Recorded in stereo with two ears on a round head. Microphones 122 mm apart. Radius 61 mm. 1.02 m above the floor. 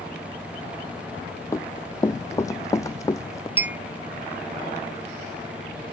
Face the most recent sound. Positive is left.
turn(degrees=-15)  # may be behind; listen again after turning